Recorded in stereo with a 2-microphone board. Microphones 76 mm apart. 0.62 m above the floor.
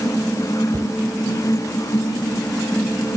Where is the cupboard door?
40° right (ahead or behind).